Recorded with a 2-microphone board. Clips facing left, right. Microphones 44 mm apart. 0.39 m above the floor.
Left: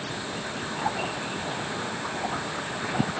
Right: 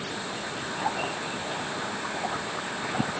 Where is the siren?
No siren in this recording.